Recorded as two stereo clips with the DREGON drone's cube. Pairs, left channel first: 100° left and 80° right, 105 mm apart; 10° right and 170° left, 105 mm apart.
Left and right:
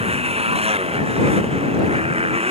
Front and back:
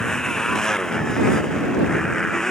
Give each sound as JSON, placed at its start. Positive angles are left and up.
{"t": 0.0, "sound": "a motorcycle", "azimuth_deg": -95}